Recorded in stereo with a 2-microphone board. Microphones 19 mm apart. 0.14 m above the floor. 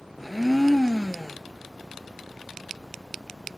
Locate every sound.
0.2 s a blender: centre (ahead or behind), 0.9 m